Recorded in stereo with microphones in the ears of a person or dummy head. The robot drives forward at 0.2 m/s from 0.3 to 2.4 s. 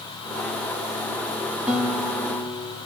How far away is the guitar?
About 1.6 m.